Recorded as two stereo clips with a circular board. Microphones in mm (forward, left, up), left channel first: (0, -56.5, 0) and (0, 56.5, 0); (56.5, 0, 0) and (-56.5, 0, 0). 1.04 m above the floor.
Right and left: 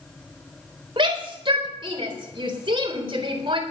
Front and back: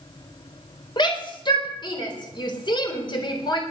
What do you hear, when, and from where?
1.0 s a shout: 45° left, 4 m